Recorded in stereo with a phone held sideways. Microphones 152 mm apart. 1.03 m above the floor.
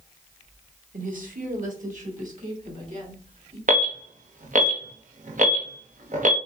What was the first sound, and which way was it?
A woman speaking, 60° right (ahead or behind).